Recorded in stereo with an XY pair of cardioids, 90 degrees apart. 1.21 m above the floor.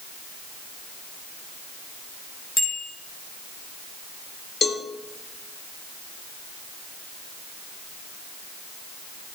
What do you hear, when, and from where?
2.6 s a bicycle bell: 60° left, 5.5 m
4.6 s a cowbell: 50° left, 1.9 m